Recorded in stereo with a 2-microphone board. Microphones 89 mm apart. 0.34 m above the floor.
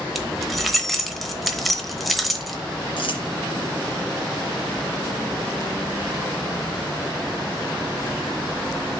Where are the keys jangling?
Centre (ahead or behind), 0.9 m.